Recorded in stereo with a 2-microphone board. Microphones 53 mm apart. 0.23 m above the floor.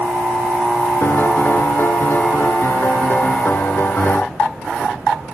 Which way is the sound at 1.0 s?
40° left (ahead or behind).